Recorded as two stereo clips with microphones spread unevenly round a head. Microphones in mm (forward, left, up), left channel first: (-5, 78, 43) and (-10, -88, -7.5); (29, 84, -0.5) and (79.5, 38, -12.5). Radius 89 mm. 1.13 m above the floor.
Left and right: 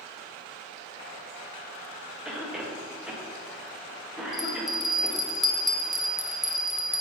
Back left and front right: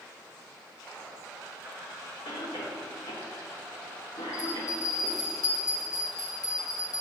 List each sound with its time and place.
2.2 s a cough: 175° right, 1.2 m
4.3 s a bell: 165° right, 0.8 m